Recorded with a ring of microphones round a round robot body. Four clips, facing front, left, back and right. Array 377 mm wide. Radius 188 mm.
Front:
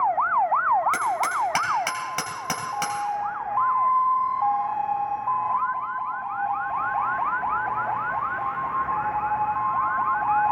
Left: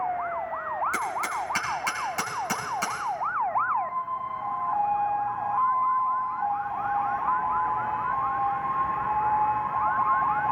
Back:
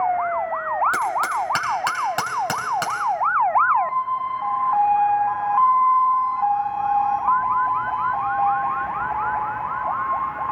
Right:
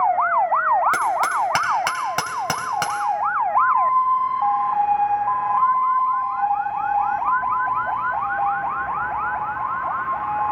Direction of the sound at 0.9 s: 100° right.